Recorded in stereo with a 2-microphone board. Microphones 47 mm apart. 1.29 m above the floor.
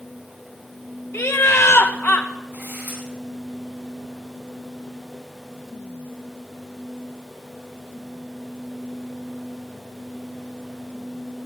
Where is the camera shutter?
50° right (ahead or behind), 9.5 m.